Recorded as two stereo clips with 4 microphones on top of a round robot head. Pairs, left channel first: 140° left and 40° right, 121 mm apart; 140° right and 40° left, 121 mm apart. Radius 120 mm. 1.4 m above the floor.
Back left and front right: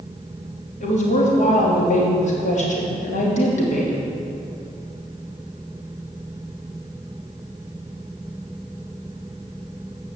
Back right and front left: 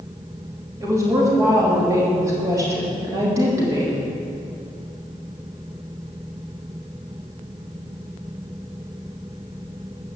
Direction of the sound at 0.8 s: 110° left.